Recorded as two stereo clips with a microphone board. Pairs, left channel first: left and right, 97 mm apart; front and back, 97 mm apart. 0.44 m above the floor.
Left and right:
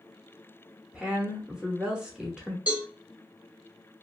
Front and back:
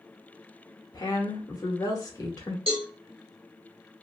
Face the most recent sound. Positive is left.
turn(degrees=-165)